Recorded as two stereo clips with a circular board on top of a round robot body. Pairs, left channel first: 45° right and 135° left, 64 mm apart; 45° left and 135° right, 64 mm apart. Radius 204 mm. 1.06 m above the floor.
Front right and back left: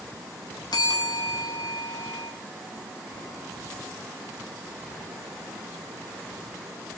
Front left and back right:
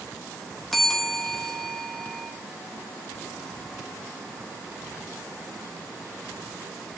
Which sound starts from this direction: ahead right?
A bell, at 0.7 s.